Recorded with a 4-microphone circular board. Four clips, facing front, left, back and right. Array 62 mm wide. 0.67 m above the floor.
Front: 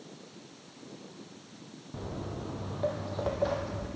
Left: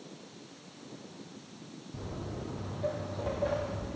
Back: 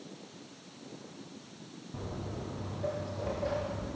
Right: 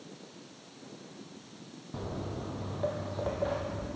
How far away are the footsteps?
About 1.1 m.